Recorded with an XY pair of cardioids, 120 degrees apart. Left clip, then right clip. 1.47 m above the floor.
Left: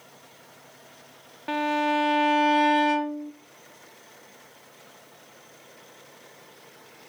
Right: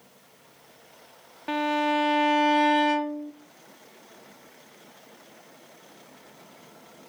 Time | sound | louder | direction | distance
1.5 | a violin | even | 5° right | 0.6 m